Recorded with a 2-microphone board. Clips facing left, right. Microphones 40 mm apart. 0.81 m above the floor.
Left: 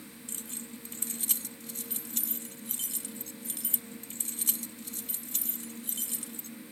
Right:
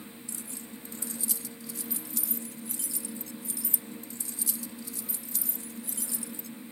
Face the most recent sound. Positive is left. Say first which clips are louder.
# left 2 dB
turn(degrees=55)  # may be behind; listen again after turning